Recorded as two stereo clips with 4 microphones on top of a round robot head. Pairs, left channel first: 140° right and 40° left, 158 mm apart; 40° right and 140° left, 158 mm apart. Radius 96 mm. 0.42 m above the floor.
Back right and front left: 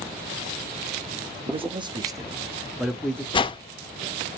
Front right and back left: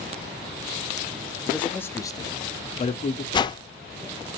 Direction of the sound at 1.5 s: 40° left.